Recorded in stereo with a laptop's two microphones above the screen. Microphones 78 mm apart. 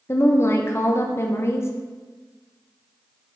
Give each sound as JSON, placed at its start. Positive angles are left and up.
{"t": 0.1, "sound": "a woman speaking", "side_deg": 35, "distance_m": 0.6}